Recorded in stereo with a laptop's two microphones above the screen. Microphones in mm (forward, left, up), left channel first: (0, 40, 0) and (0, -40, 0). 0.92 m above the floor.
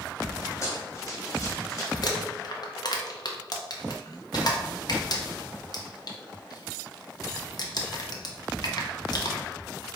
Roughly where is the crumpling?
Left.